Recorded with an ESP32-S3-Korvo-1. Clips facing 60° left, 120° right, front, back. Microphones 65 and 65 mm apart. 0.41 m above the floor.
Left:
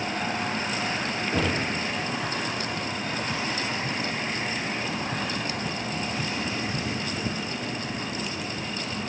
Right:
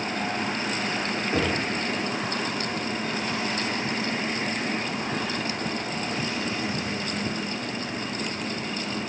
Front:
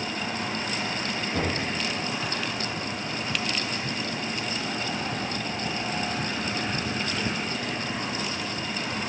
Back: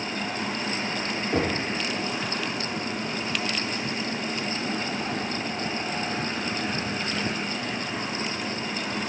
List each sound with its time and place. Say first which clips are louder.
1.3 s knocking: right 1 dB, back 4 dB; 175° left, 5 m